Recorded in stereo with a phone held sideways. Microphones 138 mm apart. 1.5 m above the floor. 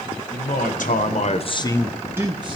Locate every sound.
0.3 s a man speaking: 75° left (ahead or behind), 1.6 m; by 2.5 s 40° right (ahead or behind), 0.9 m